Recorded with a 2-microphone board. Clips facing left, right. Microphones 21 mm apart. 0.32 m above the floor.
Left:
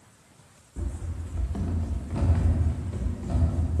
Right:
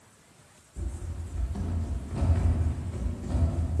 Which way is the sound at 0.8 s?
45° left (ahead or behind).